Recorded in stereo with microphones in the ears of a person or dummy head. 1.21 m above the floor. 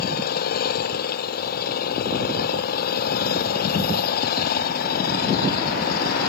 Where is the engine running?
50° left (ahead or behind).